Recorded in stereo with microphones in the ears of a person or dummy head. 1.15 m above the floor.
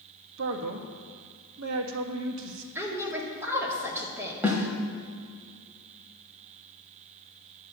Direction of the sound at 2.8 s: 10° right (ahead or behind).